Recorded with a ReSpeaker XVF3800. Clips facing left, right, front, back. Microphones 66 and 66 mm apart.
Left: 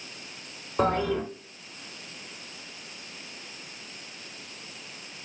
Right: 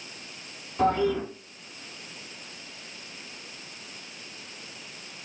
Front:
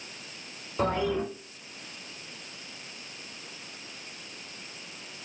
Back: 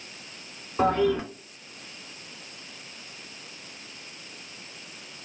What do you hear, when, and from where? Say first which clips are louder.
0.8 s a toilet flushing: right 1 dB, back 5 dB; 125° left, 2 m